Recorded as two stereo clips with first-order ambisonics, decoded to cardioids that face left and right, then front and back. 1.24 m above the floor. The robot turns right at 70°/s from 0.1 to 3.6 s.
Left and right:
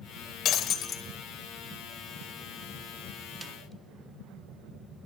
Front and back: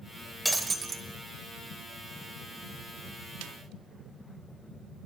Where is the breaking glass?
100° left, 1.1 m; by 1.0 s 140° left, 1.1 m.